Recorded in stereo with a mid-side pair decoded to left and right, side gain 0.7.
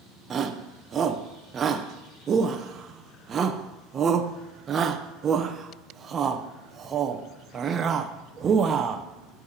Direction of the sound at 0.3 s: 30° right.